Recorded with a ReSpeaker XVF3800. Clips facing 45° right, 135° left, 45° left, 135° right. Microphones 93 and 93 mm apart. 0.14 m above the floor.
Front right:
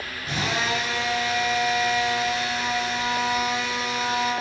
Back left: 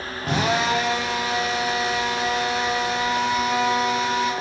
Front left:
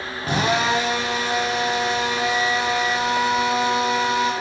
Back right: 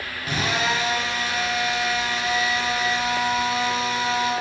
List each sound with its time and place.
0.2 s a drill: 100° left, 7 m